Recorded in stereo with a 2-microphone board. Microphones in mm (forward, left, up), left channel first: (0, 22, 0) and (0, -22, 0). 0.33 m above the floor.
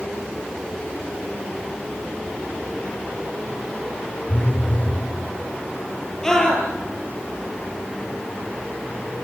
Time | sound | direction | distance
4.3 | a phone buzzing | 40° left (ahead or behind) | 7.5 m
6.2 | a scream | 15° left (ahead or behind) | 6.5 m